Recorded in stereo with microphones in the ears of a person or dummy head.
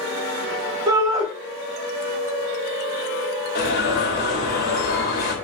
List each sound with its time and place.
0.9 s a shout: 20° right (ahead or behind), 1.1 m
3.5 s an alarm: 55° left (ahead or behind), 1.6 m